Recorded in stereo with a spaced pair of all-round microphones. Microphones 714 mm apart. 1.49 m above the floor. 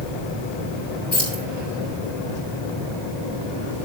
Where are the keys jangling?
80° left, 4 m.